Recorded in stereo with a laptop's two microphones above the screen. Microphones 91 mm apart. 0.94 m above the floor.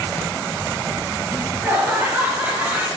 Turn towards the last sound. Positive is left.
turn(degrees=-25)  # may be behind; listen again after turning